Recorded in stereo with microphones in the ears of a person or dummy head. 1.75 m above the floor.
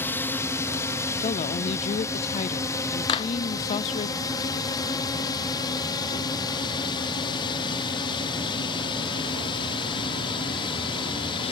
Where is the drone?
15° left (ahead or behind); by 11.5 s 30° left (ahead or behind).